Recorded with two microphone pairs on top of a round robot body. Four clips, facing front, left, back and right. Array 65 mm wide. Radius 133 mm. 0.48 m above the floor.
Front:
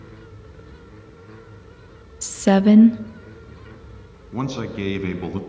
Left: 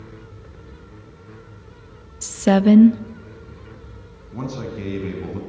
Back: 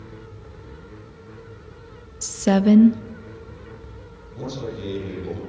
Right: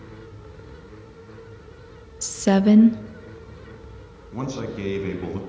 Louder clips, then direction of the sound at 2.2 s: Left 3 dB, front 2 dB; 50° left.